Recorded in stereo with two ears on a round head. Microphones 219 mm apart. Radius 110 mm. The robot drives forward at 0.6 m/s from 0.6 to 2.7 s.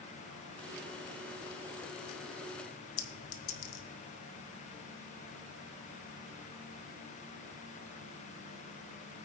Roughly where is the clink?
Left.